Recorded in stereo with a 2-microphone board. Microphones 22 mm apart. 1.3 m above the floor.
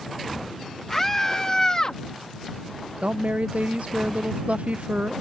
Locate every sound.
0.9 s a scream: 15° left (ahead or behind); by 2.0 s 40° left (ahead or behind)
3.0 s a woman speaking: 70° right (ahead or behind)